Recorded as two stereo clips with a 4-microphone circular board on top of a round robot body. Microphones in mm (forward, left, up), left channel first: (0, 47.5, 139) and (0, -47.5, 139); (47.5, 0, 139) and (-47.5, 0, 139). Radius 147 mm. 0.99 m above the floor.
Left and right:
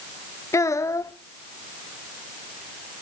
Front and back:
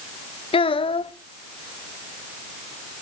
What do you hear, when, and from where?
0.5 s a child speaking: 30° left, 0.7 m